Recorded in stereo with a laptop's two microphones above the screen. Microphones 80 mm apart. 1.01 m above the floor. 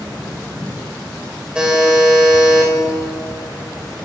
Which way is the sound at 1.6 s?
10° right (ahead or behind).